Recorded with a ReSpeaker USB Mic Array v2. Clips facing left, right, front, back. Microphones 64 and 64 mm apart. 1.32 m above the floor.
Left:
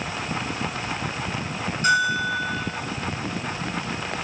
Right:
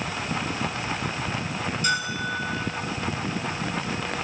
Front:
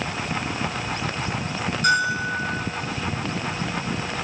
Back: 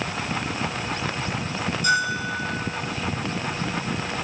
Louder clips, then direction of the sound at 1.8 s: Left 8 dB, front 2 dB; 40° left.